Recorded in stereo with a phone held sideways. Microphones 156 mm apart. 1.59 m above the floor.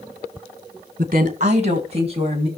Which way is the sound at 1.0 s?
55° right (ahead or behind).